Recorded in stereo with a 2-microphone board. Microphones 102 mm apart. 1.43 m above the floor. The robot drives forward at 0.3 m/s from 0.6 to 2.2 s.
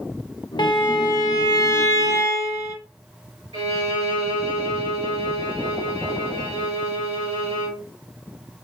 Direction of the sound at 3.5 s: 70° right (ahead or behind).